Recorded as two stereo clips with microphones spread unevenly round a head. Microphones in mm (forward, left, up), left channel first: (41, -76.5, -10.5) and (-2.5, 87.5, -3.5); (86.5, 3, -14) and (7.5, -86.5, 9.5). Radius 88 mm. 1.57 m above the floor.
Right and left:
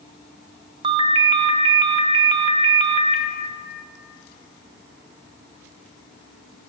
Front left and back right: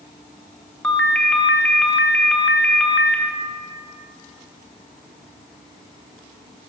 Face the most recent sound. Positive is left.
turn(degrees=145)